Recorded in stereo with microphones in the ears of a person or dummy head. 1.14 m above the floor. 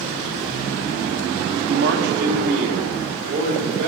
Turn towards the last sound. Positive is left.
turn(degrees=-40)  # may be behind; listen again after turning